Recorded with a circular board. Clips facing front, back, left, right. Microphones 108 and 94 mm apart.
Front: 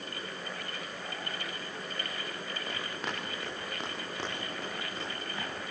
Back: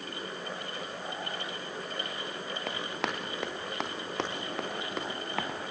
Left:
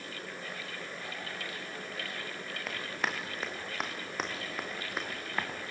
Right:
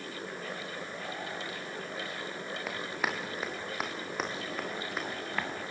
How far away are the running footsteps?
About 5 m.